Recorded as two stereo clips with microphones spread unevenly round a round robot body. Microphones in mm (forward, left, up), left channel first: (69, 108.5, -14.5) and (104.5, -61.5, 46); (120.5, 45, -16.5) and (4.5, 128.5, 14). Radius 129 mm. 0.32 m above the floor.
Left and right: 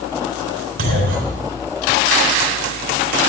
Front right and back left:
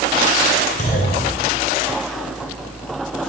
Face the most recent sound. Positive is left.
turn(degrees=-90)